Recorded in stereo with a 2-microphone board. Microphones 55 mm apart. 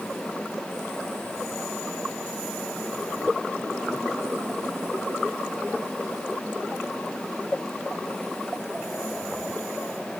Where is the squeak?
No squeak in this recording.